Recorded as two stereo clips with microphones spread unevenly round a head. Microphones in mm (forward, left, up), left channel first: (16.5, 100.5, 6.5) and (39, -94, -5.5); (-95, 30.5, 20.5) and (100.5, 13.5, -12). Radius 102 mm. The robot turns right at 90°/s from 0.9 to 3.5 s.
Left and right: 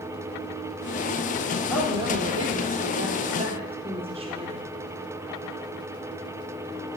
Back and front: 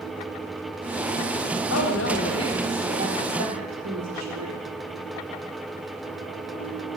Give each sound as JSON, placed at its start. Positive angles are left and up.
{"t": 1.7, "sound": "a woman speaking", "azimuth_deg": 175, "distance_m": 4.0}